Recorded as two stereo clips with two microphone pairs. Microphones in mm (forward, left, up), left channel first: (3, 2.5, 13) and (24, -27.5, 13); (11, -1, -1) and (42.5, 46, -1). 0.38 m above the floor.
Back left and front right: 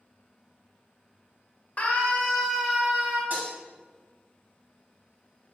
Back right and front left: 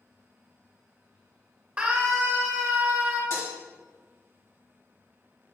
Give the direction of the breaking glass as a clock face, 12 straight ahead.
3 o'clock.